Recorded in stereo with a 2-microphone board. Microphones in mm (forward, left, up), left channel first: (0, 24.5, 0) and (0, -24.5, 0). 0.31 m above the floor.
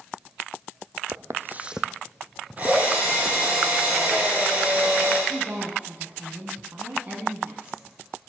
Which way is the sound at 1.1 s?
75° right (ahead or behind).